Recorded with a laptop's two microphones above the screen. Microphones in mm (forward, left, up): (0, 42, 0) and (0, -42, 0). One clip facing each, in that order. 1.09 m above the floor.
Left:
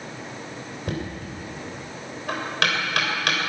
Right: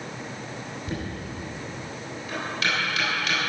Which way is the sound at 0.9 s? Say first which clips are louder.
Left 3 dB; 65° left (ahead or behind).